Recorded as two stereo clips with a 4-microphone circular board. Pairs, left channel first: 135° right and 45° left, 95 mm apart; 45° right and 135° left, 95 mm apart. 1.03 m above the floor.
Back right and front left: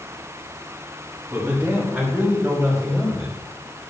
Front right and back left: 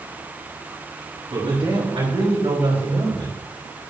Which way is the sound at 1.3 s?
115° left.